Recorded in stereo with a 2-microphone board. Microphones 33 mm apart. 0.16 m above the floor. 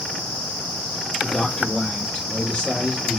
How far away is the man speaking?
About 2 m.